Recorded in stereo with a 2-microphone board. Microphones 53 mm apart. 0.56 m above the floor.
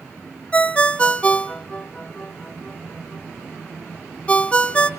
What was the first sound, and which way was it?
A ringtone, 20° left (ahead or behind).